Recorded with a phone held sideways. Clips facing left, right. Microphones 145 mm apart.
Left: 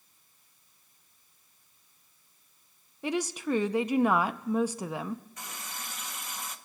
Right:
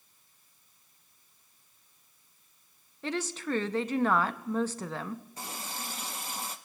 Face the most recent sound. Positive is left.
turn(degrees=-30)  # may be behind; listen again after turning